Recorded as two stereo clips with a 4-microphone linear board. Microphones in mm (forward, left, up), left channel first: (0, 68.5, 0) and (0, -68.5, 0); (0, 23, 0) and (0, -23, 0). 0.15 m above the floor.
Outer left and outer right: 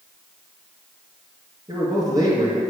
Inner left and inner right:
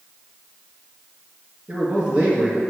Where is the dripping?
No dripping in this recording.